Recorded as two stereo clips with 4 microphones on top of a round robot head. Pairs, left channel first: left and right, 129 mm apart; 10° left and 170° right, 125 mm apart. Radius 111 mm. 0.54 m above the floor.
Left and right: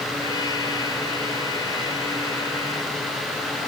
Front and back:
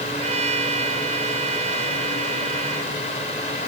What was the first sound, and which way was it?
A trumpet, 155° left.